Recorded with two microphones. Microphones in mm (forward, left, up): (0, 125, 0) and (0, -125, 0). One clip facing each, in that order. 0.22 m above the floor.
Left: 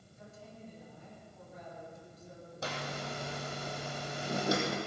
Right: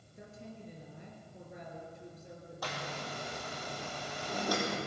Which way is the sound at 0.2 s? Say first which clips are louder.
Right 3 dB; 70° right (ahead or behind).